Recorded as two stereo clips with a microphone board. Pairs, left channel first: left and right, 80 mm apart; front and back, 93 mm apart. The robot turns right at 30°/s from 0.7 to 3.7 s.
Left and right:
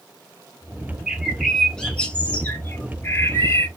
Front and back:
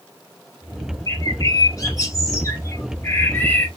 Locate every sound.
1.1 s a bird: 10° right, 1.6 m; by 3.7 s 70° left, 1.6 m